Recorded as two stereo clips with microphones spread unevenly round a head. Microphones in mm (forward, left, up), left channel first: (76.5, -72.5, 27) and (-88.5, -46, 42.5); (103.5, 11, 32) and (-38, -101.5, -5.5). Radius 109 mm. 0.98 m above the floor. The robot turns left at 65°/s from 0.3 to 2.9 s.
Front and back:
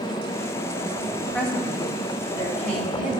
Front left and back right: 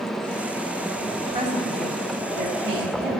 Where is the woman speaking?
85° right, 3 m; by 3.2 s 175° left, 3 m.